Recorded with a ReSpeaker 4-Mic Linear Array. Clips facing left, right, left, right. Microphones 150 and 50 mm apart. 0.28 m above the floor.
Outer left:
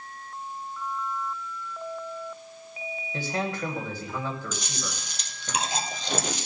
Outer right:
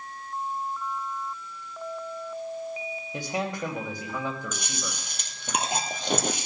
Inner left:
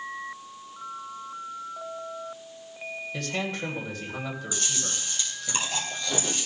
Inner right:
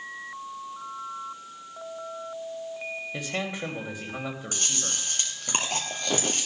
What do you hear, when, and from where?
3.1 s a man speaking: 15° right (ahead or behind), 1.6 m
4.5 s chewing: 55° right (ahead or behind), 1.9 m